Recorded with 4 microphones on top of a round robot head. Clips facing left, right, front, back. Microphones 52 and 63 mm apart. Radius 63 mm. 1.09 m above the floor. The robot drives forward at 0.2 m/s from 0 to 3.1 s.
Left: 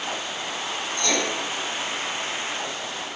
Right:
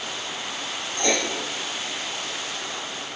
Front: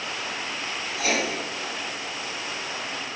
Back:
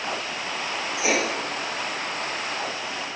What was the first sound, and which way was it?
Writing, 120° right.